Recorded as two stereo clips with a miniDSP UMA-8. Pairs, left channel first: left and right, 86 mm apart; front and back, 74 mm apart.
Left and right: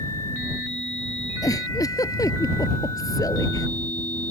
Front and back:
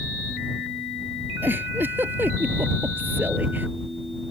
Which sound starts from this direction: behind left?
A giggle, at 1.4 s.